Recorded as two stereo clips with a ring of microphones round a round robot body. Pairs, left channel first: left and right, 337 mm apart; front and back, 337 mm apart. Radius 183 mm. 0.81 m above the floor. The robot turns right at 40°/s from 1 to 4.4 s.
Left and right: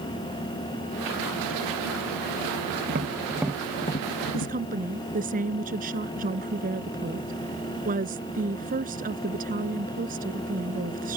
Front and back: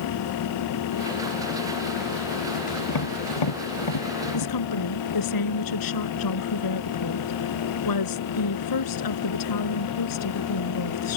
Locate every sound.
2.9 s tapping: 25° right; by 4.6 s 35° left
4.3 s a woman speaking: 25° right; by 11.2 s 20° right